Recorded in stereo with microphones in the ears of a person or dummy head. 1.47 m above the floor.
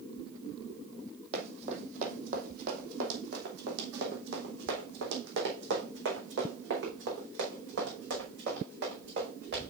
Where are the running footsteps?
40° right (ahead or behind), 2.5 m; by 9.7 s 60° right (ahead or behind), 7 m.